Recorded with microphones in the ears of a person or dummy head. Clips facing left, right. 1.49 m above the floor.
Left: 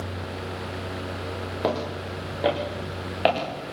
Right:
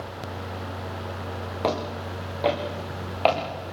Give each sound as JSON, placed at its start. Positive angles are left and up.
{"t": 1.6, "sound": "footsteps", "side_deg": 10, "distance_m": 5.5}